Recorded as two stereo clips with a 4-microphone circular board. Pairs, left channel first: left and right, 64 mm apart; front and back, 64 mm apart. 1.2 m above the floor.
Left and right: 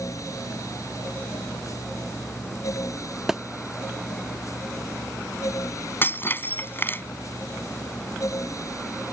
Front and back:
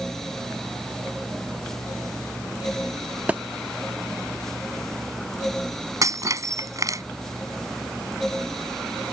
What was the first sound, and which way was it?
A thud, 165° right.